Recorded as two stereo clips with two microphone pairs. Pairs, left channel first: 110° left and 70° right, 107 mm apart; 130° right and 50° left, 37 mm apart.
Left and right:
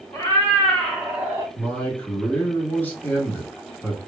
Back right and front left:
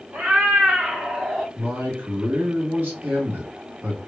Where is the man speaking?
40° left, 2 m.